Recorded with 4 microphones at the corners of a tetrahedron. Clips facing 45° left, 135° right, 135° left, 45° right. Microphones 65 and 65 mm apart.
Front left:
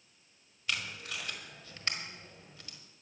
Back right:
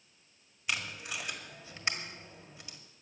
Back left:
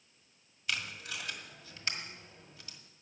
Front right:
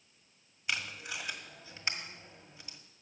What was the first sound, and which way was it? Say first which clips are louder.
Tape being pulled: back right 1 dB, front right 1 dB; 80° right.